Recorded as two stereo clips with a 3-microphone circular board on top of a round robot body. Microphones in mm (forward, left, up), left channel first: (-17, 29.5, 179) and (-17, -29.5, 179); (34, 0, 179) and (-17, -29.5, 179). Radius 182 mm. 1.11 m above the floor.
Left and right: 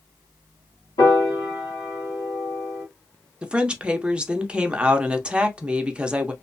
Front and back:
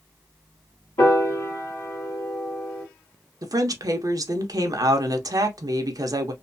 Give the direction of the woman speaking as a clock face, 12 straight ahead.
5 o'clock.